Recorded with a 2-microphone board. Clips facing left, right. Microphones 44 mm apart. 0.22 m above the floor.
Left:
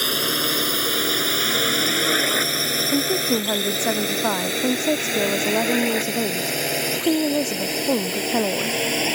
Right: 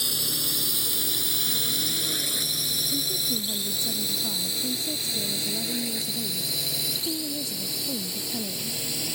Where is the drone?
55° left (ahead or behind); by 9.2 s 60° left (ahead or behind).